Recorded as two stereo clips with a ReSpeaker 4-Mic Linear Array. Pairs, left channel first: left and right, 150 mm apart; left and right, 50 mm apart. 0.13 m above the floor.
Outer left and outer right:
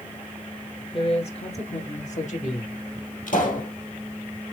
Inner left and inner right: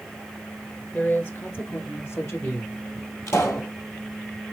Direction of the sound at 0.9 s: 40° left (ahead or behind).